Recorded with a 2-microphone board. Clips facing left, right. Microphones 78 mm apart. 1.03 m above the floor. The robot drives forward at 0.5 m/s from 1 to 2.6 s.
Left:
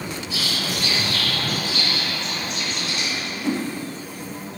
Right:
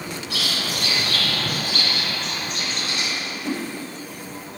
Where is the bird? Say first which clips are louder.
Even; 55° right (ahead or behind), 1.2 m; by 3.1 s 40° right (ahead or behind), 1.5 m.